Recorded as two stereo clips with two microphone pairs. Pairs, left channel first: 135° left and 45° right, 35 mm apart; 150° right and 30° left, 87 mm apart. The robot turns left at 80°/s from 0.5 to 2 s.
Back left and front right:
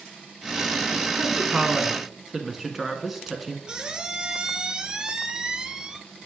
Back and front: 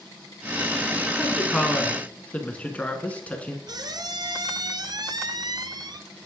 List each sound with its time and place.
1.2 s a woman speaking: 50° right, 1.1 m; by 3.6 s 120° right, 1.1 m
3.7 s a squeak: 20° left, 0.6 m